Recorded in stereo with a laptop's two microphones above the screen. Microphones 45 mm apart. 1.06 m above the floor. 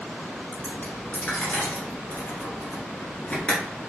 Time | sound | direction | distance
0.5 | a dropped coin | 30° left (ahead or behind) | 1.6 m